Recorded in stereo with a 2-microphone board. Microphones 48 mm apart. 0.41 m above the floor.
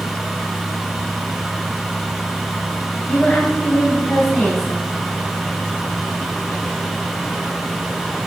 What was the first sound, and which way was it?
A woman speaking, 10° left (ahead or behind).